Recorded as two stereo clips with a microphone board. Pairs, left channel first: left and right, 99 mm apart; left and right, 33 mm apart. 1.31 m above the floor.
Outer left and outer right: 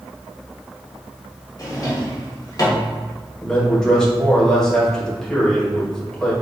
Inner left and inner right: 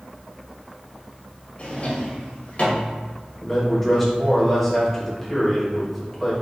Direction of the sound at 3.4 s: 5° left (ahead or behind).